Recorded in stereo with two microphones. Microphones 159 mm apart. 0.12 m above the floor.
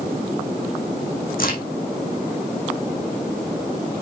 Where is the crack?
65° left (ahead or behind), 2.5 m.